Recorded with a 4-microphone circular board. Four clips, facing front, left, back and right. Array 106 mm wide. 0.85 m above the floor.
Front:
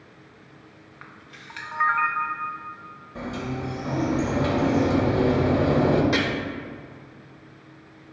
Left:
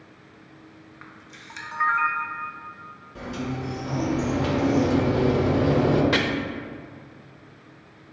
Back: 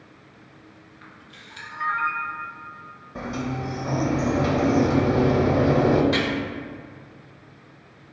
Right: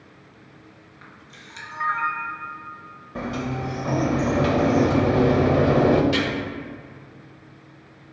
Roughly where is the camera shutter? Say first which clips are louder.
Even, front 3 dB; ahead left.